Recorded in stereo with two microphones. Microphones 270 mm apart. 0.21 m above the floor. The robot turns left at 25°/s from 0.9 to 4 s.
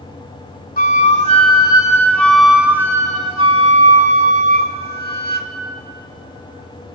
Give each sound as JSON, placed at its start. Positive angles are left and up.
{"t": 0.8, "sound": "a flute", "azimuth_deg": 40, "distance_m": 0.8}